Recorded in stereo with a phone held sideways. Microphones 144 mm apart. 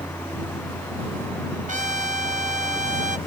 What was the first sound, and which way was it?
A fan, 15° left (ahead or behind).